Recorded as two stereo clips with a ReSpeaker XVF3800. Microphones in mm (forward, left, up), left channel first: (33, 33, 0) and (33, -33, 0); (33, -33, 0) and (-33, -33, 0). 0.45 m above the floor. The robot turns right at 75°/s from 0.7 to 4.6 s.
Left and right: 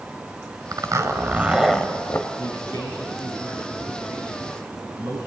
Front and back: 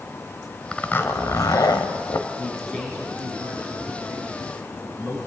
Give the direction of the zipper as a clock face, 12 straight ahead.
2 o'clock.